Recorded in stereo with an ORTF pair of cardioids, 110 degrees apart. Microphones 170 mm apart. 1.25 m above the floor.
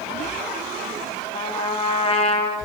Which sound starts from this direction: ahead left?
A trumpet, at 1.3 s.